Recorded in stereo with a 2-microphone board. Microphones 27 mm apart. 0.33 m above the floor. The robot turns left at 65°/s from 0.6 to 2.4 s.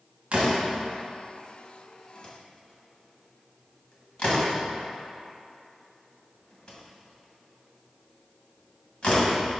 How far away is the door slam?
About 1.5 m.